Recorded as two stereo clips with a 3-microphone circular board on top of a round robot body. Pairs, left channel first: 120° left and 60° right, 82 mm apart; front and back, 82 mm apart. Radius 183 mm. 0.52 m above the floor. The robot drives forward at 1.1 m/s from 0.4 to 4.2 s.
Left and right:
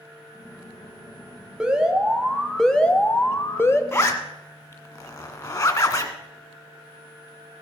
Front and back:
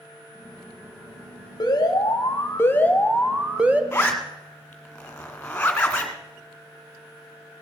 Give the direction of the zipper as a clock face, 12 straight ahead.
10 o'clock.